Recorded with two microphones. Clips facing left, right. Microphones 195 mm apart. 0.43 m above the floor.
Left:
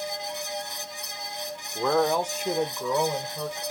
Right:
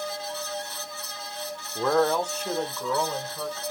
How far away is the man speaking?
About 0.8 m.